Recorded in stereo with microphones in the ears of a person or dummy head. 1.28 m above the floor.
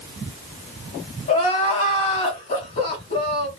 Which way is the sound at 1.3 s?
40° left (ahead or behind).